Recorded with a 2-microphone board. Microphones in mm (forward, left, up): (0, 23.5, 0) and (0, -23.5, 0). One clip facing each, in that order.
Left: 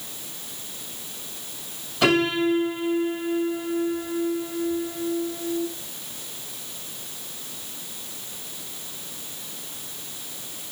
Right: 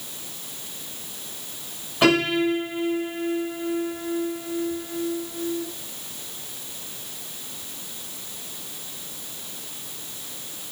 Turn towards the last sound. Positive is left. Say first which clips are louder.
# right 1 dB
turn(degrees=-20)  # may be behind; listen again after turning